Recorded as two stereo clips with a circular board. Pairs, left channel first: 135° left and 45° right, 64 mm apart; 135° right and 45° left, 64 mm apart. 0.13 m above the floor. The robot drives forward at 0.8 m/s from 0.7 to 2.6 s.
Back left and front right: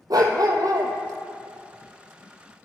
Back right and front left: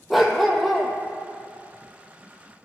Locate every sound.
0.1 s a dog barking: 40° right, 1.1 m; by 0.9 s 50° right, 1.0 m